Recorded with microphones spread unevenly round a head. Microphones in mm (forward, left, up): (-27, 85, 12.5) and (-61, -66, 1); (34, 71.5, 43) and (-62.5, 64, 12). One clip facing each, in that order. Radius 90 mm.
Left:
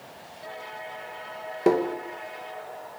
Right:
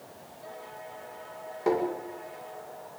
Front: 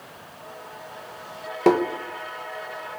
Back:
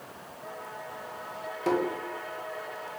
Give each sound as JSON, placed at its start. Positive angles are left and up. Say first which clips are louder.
{"t": 1.7, "sound": "tapping", "louder": "left 5 dB, front 8 dB", "azimuth_deg": 30, "distance_m": 2.0}